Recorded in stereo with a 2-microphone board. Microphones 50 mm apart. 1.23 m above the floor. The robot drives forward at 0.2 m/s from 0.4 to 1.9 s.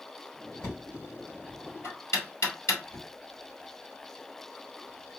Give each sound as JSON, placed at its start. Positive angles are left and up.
{"t": 0.6, "sound": "knocking", "side_deg": 65, "distance_m": 2.5}